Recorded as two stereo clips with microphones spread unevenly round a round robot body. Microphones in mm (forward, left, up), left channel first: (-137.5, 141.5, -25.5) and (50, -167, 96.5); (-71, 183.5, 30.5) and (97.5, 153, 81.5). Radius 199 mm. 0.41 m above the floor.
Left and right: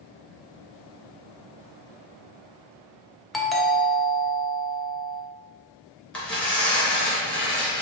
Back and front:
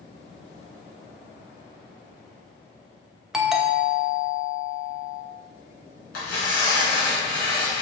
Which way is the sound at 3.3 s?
120° left.